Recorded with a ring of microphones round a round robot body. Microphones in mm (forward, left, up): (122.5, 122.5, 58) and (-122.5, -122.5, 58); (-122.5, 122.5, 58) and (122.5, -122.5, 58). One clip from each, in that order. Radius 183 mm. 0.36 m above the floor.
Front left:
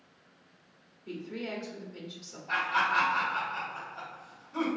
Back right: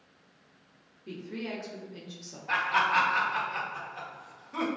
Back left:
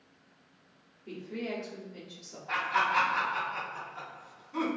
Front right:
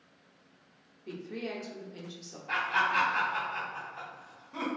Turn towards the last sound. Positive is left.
turn(degrees=-120)